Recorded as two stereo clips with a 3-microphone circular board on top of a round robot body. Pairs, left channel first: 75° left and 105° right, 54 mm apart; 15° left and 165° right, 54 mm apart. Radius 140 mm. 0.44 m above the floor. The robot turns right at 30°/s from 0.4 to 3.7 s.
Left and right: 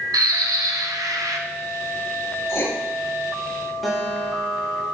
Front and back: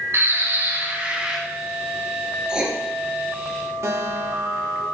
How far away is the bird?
About 0.8 m.